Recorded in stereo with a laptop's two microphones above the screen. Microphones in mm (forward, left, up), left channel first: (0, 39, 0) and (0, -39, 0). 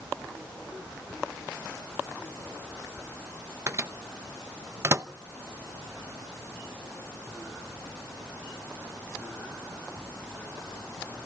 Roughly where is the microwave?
Right.